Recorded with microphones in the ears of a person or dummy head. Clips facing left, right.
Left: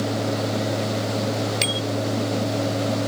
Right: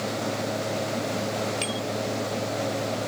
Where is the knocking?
No knocking in this recording.